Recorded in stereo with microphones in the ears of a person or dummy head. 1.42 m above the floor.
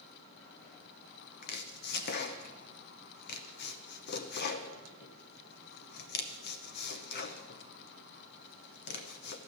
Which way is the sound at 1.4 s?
55° left (ahead or behind).